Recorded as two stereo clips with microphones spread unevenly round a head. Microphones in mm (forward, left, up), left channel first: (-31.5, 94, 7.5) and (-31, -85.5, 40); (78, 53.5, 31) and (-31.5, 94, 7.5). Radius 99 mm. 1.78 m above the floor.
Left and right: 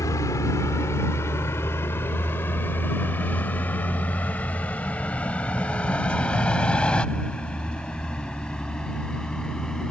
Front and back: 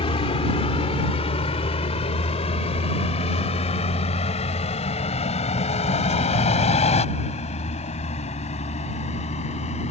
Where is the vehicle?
15° left; by 9.9 s straight ahead.